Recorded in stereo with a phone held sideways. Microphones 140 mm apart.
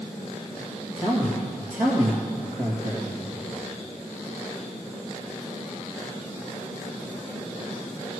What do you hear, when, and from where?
1.0 s a man speaking: 65° right (ahead or behind), 2.5 m